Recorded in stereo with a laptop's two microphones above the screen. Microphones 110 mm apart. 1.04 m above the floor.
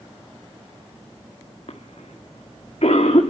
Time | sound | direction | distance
1.7 | a cough | 70° left (ahead or behind) | 1.9 m